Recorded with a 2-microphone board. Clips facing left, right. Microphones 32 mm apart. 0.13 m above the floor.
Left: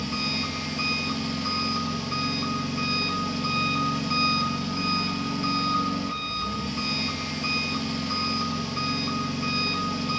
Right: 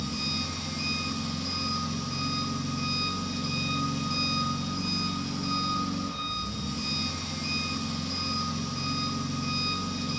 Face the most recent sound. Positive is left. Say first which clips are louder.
# left 4 dB
turn(degrees=40)  # may be behind; listen again after turning